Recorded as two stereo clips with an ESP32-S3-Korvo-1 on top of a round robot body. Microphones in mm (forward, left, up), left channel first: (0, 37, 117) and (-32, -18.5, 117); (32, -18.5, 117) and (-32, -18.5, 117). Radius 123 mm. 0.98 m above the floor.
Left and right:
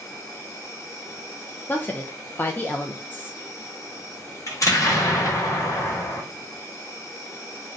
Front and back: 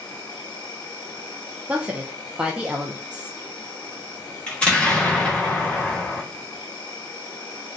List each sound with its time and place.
0.0 s an insect: 15° left, 1.0 m
1.7 s a woman speaking: 115° left, 0.5 m
4.5 s an explosion: 70° left, 1.4 m